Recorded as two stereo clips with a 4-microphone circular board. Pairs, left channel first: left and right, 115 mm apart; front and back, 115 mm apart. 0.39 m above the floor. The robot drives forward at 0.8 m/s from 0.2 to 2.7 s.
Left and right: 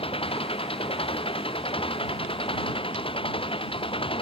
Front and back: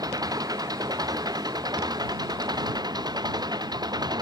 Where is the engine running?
125° left; by 4.2 s 130° left.